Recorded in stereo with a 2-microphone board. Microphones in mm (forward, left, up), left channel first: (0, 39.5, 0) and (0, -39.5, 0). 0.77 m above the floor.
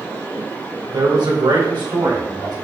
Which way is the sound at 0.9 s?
75° right (ahead or behind).